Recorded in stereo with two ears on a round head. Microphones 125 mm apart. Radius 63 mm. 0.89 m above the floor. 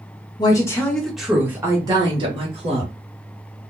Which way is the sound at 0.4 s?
30° left (ahead or behind).